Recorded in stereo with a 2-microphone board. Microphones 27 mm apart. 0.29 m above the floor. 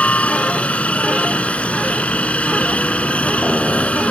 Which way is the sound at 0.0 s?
55° left (ahead or behind).